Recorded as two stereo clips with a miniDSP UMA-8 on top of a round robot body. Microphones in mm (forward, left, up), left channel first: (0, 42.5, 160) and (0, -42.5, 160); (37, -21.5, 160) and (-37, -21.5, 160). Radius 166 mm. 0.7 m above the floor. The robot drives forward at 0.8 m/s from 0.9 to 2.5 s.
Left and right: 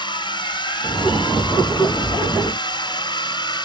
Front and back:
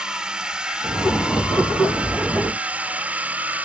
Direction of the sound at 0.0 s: 100° left.